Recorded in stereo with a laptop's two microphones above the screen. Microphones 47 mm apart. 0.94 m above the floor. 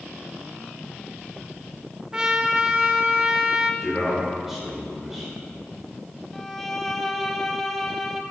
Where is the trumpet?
20° right (ahead or behind), 0.7 m.